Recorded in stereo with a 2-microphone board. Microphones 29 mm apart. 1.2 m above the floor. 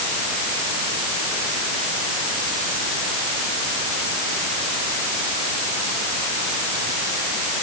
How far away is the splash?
No splash in this recording.